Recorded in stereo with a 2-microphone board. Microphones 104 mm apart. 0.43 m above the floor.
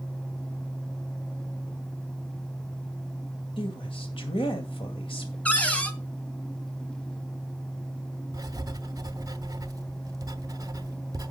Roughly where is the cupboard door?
Centre.